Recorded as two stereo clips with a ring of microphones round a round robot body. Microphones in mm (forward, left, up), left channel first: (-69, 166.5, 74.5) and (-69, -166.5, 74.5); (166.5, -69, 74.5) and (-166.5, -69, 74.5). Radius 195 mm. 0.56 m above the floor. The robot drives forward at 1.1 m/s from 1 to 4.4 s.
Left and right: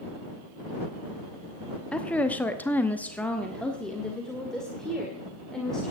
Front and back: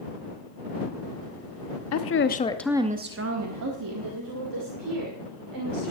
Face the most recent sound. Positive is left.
turn(degrees=180)